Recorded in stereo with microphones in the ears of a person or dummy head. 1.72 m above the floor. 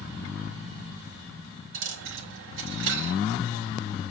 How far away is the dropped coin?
About 3 m.